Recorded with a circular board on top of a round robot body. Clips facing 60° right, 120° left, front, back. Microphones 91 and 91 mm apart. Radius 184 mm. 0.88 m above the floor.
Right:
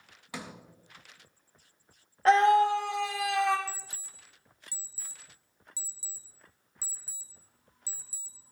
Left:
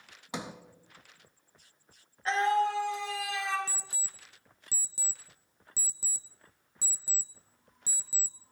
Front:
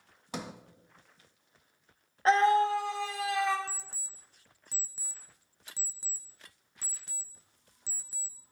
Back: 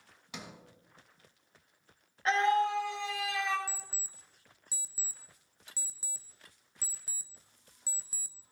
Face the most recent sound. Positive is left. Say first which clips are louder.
# right 2 dB, front 1 dB
turn(degrees=95)